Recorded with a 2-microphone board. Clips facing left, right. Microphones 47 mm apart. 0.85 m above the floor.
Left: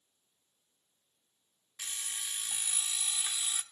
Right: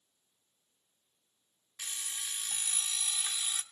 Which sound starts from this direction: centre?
An alarm clock, at 1.8 s.